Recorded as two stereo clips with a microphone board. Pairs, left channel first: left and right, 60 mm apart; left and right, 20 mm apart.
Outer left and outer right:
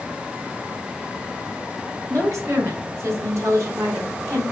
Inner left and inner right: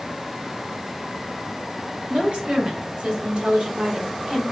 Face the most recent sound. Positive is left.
turn(degrees=-50)  # may be behind; listen again after turning